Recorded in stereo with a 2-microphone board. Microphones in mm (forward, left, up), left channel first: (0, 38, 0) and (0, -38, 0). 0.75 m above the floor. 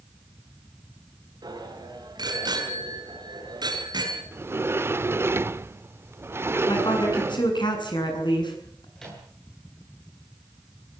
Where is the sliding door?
30° right (ahead or behind), 0.7 m.